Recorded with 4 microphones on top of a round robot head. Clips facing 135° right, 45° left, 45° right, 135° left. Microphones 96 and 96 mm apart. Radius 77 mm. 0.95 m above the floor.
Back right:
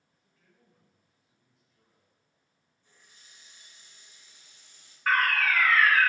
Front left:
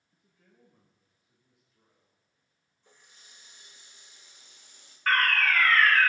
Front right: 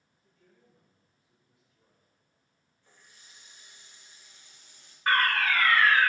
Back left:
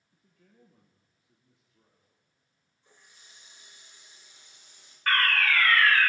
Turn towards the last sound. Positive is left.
turn(degrees=-60)